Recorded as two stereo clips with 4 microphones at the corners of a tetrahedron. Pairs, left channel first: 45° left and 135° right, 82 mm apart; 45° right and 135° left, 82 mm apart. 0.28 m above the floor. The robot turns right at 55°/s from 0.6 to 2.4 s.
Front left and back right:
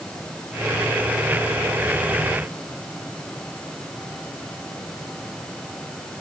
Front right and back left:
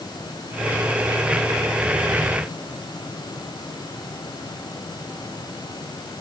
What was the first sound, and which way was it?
Only background noise.